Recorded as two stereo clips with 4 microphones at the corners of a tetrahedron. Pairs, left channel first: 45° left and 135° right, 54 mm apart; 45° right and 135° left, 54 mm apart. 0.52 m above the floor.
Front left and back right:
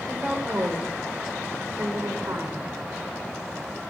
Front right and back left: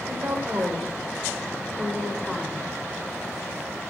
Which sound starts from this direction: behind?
A woman speaking, at 0.1 s.